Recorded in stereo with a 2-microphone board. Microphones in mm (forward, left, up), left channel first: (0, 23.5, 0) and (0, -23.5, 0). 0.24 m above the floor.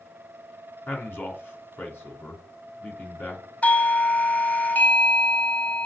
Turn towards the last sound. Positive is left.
turn(degrees=35)  # may be behind; listen again after turning